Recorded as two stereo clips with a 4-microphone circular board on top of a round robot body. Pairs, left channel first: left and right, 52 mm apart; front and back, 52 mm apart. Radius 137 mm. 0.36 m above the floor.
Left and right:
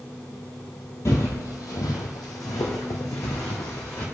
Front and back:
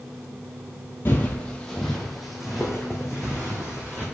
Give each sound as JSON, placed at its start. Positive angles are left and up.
{"t": 1.1, "sound": "footsteps", "azimuth_deg": 50, "distance_m": 0.5}